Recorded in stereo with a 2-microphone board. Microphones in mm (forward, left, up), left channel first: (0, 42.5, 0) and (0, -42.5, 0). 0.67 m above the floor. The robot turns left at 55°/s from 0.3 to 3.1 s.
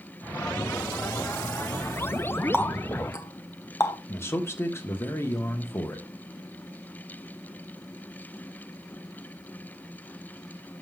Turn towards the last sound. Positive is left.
turn(degrees=30)  # may be behind; listen again after turning